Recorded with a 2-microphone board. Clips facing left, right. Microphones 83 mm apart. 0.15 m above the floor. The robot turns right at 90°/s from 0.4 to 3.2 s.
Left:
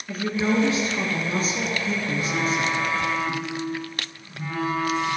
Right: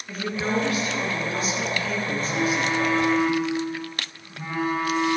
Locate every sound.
0.1 s a woman speaking: 5° left, 1.7 m; by 2.8 s 135° right, 1.7 m
2.2 s a phone buzzing: 100° left, 3 m; by 5.2 s 165° right, 3 m